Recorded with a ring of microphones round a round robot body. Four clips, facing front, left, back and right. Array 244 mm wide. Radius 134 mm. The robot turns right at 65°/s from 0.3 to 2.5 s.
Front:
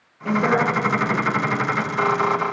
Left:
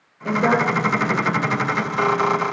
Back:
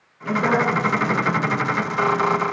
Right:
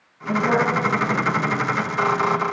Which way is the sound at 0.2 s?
70° left.